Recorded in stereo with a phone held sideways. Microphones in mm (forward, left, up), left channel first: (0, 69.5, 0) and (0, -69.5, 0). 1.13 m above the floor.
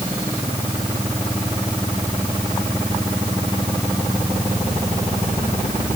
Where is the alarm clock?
No alarm clock in this recording.